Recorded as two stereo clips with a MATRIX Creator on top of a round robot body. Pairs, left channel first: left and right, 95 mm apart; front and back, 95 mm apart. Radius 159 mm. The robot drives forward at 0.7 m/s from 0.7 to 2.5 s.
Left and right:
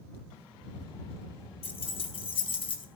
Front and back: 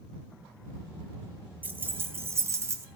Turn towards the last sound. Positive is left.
turn(degrees=120)